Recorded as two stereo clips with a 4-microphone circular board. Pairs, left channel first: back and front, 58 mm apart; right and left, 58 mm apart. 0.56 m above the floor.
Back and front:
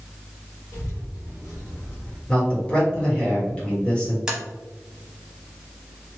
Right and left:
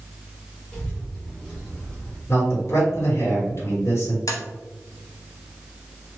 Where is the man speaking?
110° right, 1.7 m.